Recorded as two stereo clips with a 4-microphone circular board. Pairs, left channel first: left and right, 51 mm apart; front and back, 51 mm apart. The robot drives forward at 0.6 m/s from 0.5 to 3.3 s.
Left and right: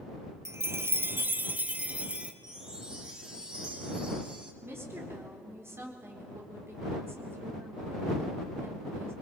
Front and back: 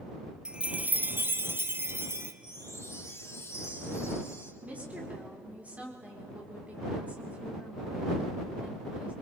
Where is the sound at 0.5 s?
110° right, 0.6 m; by 2.3 s 155° right, 1.4 m.